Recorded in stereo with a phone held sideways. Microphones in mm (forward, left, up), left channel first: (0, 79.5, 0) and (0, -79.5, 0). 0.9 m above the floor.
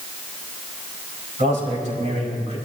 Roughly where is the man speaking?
Right.